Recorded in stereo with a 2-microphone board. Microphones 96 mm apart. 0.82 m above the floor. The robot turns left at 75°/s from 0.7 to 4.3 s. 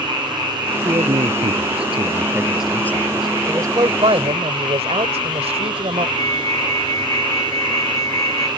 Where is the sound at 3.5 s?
25° right; by 6.1 s 85° right.